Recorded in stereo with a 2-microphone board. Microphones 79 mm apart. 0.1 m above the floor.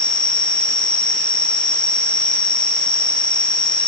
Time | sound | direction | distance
0.0 | an insect | 80° left | 3 m